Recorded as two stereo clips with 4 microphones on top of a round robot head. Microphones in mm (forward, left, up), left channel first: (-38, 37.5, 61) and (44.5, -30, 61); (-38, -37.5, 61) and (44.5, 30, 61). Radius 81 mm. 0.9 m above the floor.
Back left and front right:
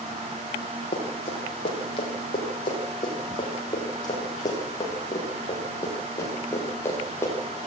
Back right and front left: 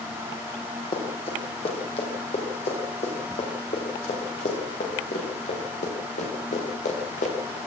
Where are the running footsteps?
Straight behind, 7.5 m; by 7.6 s 150° right, 8.5 m.